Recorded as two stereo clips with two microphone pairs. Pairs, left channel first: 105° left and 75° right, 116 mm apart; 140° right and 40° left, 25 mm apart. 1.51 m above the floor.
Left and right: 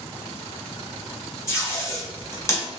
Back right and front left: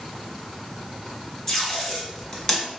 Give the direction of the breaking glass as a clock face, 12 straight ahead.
No breaking glass in this recording.